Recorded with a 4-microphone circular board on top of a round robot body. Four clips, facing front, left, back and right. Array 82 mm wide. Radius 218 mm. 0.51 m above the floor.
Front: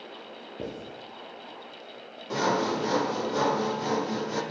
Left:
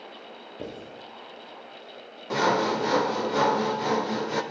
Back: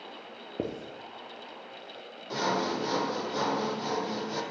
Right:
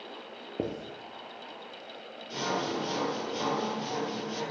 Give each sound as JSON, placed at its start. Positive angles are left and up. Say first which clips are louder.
{"t": 0.6, "sound": "writing", "louder": "right 4 dB, back 3 dB", "azimuth_deg": -140, "distance_m": 3.0}
{"t": 2.3, "sound": "sawing", "louder": "left 8 dB, front 3 dB", "azimuth_deg": 80, "distance_m": 1.2}